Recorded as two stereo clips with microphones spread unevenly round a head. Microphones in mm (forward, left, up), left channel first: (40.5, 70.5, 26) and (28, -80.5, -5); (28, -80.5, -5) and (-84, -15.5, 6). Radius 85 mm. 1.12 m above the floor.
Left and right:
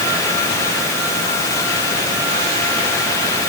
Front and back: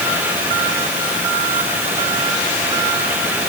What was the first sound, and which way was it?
Only background noise.